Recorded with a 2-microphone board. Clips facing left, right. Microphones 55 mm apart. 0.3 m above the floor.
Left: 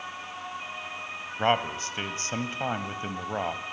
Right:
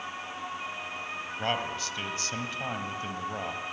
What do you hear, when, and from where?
1.4 s a man speaking: 30° left (ahead or behind), 1.3 m